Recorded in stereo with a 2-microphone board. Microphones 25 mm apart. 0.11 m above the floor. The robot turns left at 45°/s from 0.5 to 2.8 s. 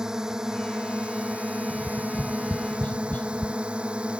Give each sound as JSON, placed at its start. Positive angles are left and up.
{"t": 0.0, "sound": "a drone", "azimuth_deg": -30}
{"t": 1.7, "sound": "tapping", "side_deg": 20}